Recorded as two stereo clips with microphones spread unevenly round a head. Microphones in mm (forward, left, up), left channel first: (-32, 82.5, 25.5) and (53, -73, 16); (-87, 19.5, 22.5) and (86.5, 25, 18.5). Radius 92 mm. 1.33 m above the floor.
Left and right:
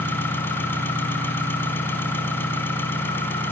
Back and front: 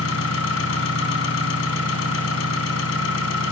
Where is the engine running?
165° right, 3.5 m.